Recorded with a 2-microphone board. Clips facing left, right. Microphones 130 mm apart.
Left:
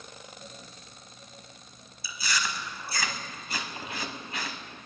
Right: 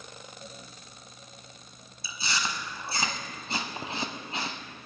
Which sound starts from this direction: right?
Chewing, at 2.0 s.